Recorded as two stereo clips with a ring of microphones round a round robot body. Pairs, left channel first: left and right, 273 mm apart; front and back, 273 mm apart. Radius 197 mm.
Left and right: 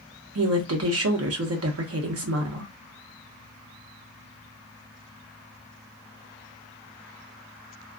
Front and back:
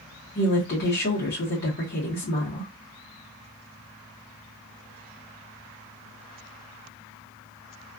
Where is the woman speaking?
60° right, 0.8 m.